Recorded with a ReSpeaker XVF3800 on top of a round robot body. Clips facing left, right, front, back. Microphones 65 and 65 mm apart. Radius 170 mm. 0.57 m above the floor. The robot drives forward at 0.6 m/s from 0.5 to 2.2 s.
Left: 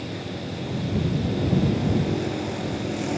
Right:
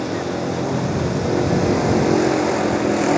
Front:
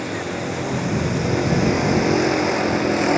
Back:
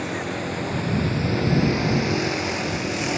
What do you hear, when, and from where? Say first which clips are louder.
0.0 s a vehicle: right 10 dB, front 2 dB; 90° right; by 3.2 s 60° right